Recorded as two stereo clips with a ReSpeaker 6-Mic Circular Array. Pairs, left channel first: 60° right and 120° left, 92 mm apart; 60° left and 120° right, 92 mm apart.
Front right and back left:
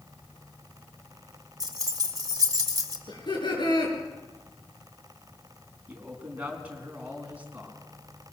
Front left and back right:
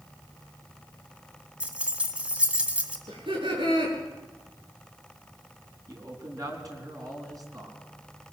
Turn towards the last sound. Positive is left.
turn(degrees=-165)